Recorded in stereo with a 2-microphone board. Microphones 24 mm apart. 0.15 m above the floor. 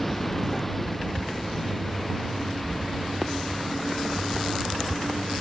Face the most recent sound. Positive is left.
turn(degrees=5)  # may be behind; listen again after turning